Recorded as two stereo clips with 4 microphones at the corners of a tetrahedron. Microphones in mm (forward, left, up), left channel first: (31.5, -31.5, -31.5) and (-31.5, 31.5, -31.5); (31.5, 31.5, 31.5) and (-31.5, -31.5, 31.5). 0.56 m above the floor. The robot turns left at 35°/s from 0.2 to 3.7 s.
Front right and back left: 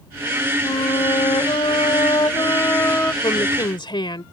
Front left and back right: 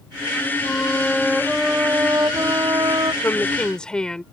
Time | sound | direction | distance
0.6 | a flute | 25° right | ?
3.2 | a woman speaking | 20° right | ?